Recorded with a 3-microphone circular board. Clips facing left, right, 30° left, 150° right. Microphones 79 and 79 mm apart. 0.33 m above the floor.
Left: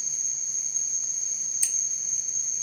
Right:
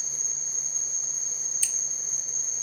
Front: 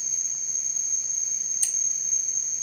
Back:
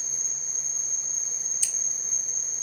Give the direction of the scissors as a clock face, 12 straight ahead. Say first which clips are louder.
Even, even; 11 o'clock.